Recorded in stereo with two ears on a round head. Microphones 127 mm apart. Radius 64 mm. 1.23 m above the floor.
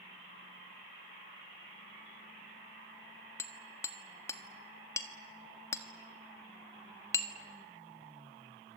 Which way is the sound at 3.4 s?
20° left (ahead or behind).